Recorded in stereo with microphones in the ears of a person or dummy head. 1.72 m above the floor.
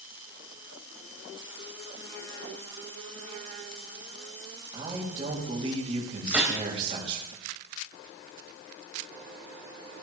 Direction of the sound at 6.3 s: 10° right (ahead or behind).